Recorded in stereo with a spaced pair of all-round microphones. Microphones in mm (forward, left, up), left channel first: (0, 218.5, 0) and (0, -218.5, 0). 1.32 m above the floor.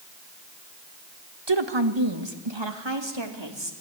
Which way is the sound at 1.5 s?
65° right (ahead or behind).